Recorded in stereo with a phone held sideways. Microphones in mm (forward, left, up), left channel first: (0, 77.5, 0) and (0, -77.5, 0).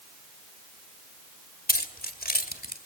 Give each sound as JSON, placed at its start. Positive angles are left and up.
{"t": 1.7, "sound": "keys jangling", "side_deg": 80, "distance_m": 2.0}